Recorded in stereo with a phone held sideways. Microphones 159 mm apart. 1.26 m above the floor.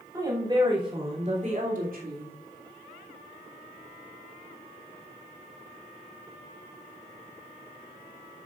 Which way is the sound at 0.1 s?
20° right (ahead or behind).